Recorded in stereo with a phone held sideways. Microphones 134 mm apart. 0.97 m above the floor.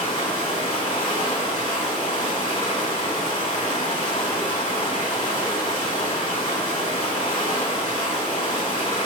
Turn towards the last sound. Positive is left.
turn(degrees=65)  # may be behind; listen again after turning